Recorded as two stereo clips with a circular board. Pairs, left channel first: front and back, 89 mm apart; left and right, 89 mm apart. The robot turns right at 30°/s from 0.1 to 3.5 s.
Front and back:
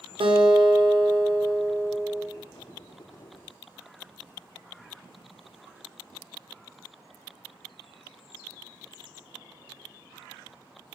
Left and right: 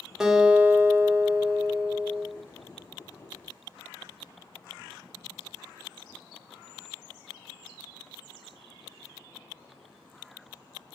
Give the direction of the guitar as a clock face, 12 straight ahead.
6 o'clock.